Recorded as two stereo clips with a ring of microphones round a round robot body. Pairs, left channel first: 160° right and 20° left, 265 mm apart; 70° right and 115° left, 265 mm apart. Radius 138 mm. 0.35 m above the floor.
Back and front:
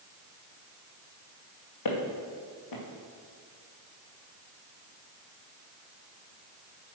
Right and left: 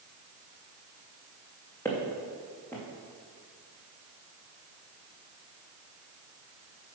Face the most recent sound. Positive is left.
turn(degrees=-150)